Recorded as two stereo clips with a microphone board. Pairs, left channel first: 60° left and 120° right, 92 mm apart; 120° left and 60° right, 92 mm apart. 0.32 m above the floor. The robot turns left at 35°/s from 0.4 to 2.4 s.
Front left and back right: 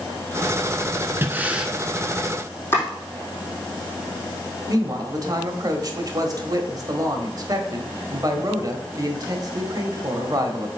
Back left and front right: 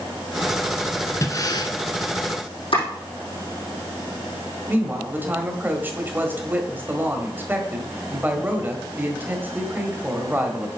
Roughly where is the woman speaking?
Behind right.